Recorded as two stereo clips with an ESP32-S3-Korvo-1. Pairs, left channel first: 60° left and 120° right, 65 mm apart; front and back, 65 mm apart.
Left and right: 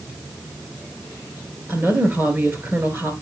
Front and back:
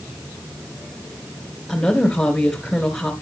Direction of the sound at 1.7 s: 75° right.